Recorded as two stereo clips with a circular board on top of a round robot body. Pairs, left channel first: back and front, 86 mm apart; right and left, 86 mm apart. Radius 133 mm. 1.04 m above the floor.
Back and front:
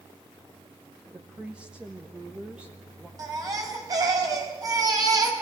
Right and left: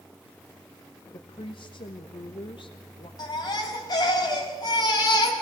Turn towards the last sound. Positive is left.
turn(degrees=-50)